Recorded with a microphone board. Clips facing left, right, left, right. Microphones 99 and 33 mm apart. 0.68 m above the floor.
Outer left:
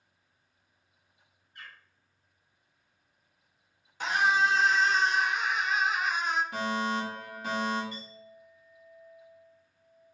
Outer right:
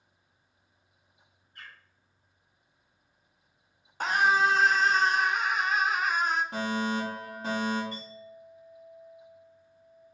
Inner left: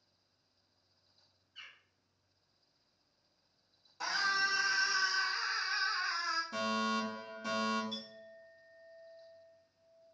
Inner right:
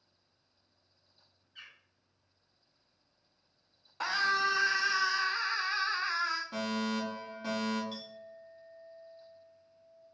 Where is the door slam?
I don't hear a door slam.